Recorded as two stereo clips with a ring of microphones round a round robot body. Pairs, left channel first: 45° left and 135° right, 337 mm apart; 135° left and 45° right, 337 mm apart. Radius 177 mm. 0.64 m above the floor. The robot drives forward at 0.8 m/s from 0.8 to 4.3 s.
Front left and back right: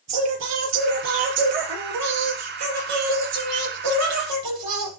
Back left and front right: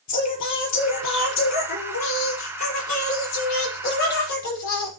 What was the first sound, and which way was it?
Singing, straight behind.